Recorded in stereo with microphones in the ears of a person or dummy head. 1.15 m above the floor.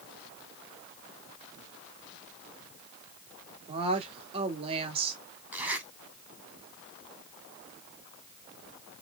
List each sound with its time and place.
3.7 s a woman speaking: 35° right (ahead or behind), 2 m
5.5 s a zipper: 5° right (ahead or behind), 3 m